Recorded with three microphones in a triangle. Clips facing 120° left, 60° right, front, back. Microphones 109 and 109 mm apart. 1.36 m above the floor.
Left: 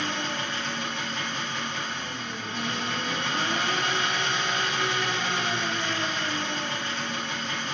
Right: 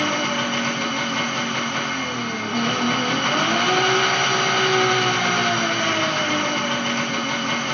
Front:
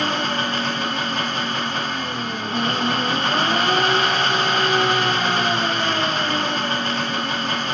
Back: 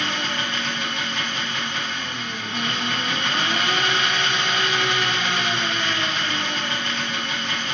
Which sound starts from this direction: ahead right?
An engine running, at 0.0 s.